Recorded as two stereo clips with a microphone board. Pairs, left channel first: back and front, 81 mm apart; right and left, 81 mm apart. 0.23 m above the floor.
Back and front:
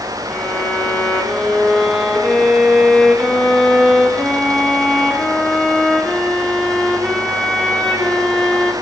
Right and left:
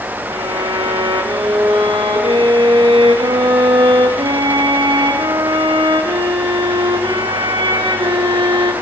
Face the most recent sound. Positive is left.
turn(degrees=90)